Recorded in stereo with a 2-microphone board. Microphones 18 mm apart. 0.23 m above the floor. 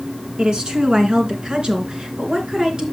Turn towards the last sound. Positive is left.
turn(degrees=-55)  # may be behind; listen again after turning